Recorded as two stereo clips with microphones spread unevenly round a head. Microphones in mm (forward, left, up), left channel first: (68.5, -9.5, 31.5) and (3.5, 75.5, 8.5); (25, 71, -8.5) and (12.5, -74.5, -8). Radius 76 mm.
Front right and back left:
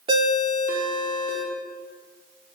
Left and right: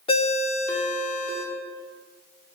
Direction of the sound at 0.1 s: 105° left.